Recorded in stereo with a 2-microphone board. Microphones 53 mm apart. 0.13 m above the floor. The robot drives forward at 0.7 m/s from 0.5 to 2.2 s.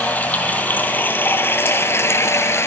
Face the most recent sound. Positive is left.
turn(degrees=60)  # may be behind; listen again after turning